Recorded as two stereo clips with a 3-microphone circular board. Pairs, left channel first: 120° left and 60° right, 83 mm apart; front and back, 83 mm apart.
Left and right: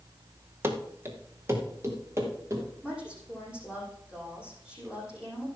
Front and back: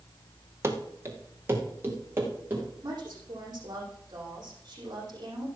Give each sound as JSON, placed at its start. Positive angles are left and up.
{"t": 0.6, "sound": "running footsteps", "azimuth_deg": -120, "distance_m": 2.0}
{"t": 2.8, "sound": "a woman speaking", "azimuth_deg": -140, "distance_m": 6.0}